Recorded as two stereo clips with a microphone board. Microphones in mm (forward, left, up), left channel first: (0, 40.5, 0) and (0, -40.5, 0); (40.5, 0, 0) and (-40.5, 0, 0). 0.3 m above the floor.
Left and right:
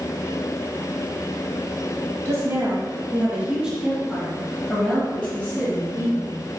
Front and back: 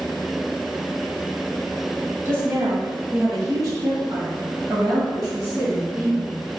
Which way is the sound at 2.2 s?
130° right.